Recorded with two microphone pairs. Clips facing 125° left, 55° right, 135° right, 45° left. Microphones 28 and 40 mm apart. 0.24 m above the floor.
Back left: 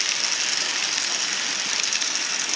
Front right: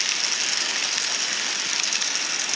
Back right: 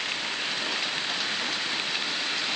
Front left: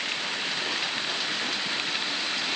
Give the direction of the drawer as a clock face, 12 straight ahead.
No drawer in this recording.